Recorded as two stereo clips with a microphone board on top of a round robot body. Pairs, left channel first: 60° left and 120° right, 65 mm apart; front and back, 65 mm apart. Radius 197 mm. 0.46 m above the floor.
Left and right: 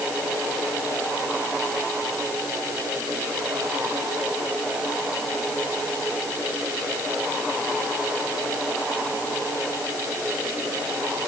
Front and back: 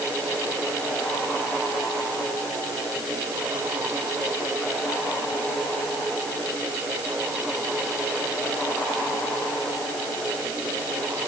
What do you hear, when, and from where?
Only background noise.